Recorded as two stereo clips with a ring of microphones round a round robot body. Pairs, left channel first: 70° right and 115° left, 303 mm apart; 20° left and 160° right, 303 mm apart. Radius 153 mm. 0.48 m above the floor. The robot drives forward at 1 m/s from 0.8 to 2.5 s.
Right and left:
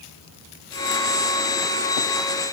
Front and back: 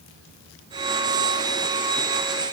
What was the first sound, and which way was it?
Only background noise.